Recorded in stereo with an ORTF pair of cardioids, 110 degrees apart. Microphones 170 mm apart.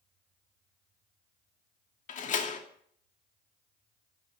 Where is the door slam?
50° left, 2.5 m.